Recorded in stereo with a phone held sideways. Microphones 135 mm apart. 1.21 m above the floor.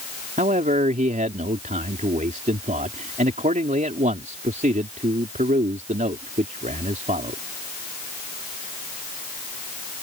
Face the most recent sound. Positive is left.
turn(degrees=-75)  # may be behind; listen again after turning